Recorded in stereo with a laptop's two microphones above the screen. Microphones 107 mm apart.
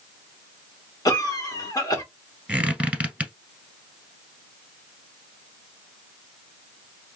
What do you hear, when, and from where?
1.1 s a cough: 35° left (ahead or behind), 1.1 m
2.5 s a squeak: 10° right (ahead or behind), 1.2 m